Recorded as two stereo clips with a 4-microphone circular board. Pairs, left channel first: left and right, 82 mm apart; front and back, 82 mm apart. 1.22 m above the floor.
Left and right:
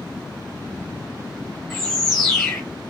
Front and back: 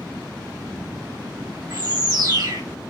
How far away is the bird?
About 1.4 m.